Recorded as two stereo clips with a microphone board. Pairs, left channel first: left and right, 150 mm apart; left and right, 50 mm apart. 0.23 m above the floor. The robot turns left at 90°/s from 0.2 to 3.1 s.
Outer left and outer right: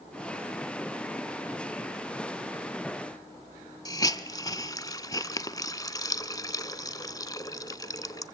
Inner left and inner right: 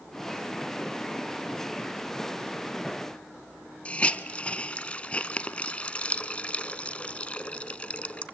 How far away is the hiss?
About 0.9 m.